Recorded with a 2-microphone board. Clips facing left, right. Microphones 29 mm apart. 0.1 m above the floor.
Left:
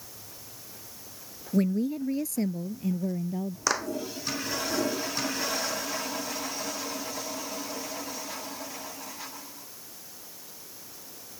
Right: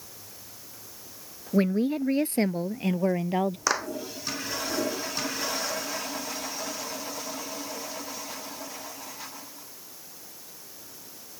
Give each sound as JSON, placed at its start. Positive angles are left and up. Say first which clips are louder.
{"t": 1.5, "sound": "a woman speaking", "louder": "right 2 dB", "side_deg": -30}
{"t": 3.7, "sound": "a clap", "louder": "left 4 dB", "side_deg": -10}